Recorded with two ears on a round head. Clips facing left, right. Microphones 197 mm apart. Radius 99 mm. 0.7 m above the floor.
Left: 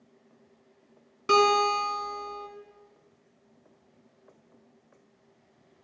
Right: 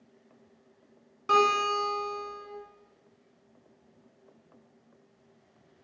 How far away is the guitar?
About 4 m.